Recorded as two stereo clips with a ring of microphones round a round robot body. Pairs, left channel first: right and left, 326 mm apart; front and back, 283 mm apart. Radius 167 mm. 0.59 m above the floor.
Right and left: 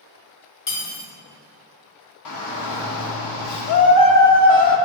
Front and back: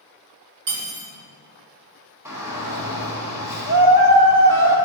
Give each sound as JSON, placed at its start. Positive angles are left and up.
{"t": 0.7, "sound": "cutlery clinking", "azimuth_deg": -125, "distance_m": 1.8}
{"t": 2.2, "sound": "a shout", "azimuth_deg": -100, "distance_m": 1.1}